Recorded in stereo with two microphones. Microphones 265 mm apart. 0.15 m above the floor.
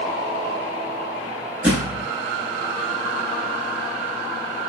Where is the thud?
5° right (ahead or behind), 1.1 m.